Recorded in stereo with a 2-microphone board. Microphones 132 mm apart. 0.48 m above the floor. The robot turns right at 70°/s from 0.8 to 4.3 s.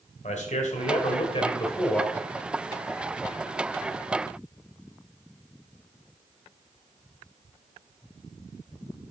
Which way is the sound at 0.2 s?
90° left.